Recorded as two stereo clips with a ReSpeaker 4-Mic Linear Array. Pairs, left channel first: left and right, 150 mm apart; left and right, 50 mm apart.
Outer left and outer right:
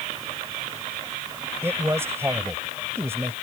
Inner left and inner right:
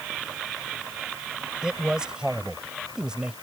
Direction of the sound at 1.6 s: 15° right (ahead or behind).